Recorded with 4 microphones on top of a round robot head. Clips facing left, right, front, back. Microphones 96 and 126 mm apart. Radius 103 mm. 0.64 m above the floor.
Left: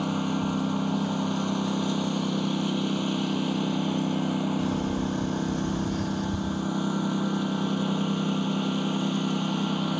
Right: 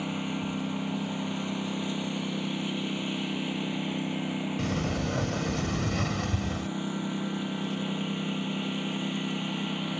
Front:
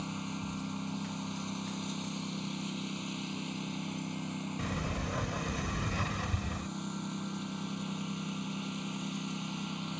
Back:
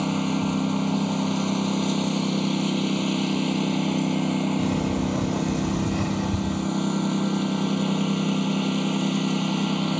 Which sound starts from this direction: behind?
A lawn mower, at 0.0 s.